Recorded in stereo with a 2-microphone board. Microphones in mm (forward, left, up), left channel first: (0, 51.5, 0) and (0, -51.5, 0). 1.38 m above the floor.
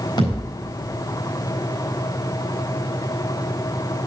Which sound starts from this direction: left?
A thud, at 0.2 s.